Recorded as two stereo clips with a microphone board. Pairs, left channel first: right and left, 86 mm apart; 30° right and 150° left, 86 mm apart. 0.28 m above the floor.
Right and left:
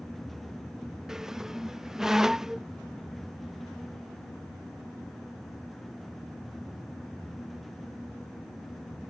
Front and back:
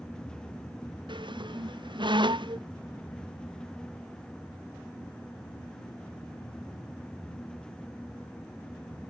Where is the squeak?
175° left.